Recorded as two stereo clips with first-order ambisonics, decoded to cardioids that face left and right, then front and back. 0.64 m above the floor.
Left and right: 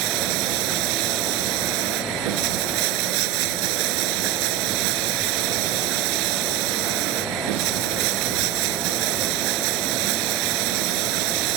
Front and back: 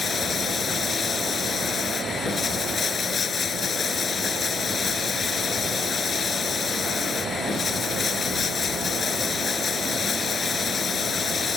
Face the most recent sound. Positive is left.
turn(degrees=-70)